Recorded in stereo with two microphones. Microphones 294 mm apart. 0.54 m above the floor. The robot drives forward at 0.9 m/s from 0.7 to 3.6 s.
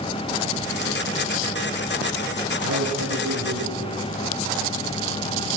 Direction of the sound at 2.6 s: 70° right (ahead or behind).